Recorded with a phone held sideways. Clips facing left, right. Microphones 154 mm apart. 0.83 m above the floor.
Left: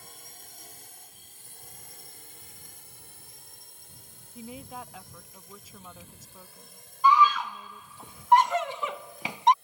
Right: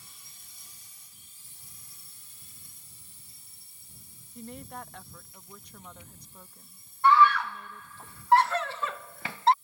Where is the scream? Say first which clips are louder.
Even; 20° left (ahead or behind).